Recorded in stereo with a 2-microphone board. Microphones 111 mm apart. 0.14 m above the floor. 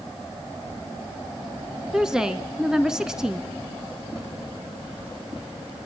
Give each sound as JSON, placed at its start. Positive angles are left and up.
{"t": 1.9, "sound": "a woman speaking", "side_deg": -5, "distance_m": 1.9}